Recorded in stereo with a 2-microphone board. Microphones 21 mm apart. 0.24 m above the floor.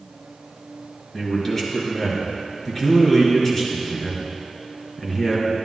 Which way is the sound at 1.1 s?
15° left (ahead or behind).